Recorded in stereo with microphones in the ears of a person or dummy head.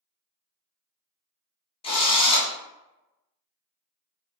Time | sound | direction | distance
1.8 | a drill | 35° left (ahead or behind) | 0.6 m